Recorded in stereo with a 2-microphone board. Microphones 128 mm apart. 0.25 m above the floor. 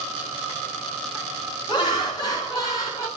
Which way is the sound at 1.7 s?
35° left (ahead or behind).